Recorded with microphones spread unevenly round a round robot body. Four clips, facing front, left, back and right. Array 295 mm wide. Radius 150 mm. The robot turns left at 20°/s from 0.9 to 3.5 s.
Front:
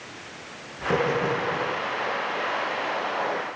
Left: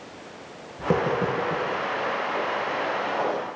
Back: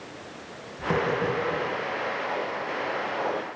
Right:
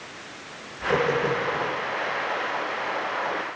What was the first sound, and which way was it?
Tapping, 100° left.